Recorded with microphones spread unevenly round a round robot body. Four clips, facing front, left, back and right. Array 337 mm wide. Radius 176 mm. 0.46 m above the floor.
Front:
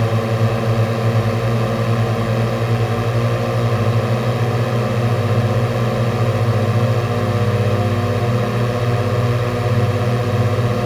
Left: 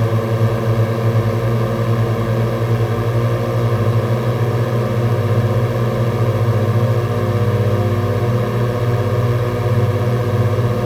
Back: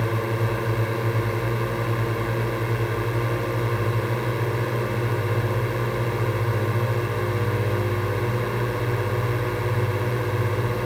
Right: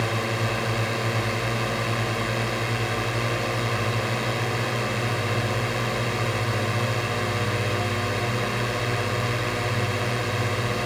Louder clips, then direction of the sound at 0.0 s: Left 7 dB, front 6 dB; 50° left.